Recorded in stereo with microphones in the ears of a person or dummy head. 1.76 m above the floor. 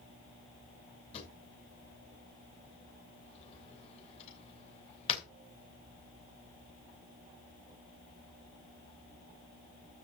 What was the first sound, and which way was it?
A drawer, 30° left (ahead or behind).